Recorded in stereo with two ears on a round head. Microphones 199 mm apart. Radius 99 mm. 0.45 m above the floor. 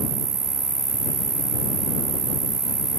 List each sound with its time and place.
0.0 s an insect: 45° right (ahead or behind)